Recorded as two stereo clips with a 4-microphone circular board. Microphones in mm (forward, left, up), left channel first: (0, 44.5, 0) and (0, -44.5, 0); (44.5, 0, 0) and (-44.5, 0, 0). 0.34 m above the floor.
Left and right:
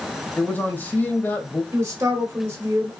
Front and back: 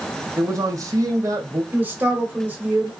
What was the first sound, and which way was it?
A man speaking, 150° left.